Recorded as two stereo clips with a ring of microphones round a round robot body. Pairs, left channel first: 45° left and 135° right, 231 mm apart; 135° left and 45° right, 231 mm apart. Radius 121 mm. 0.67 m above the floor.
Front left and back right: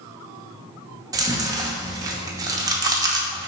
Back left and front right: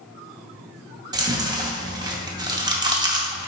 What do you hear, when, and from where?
1.1 s chewing: 85° right, 0.7 m